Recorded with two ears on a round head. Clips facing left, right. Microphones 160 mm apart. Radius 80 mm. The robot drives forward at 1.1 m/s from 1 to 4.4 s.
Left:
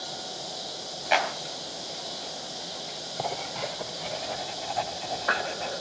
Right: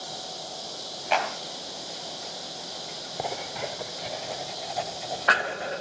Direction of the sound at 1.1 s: 5° left (ahead or behind).